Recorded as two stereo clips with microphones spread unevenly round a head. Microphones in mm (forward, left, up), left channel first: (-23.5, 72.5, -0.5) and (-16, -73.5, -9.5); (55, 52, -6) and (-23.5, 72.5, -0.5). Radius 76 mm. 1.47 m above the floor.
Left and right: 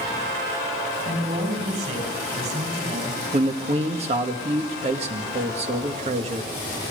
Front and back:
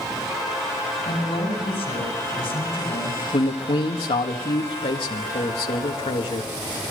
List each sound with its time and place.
1.1 s a man speaking: 40° right, 8.5 m
3.3 s a man speaking: 35° right, 1.9 m